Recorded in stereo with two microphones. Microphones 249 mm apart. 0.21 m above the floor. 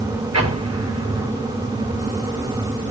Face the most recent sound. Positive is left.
turn(degrees=-80)